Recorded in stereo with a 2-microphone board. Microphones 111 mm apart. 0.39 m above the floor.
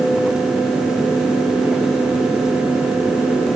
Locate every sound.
Only background noise.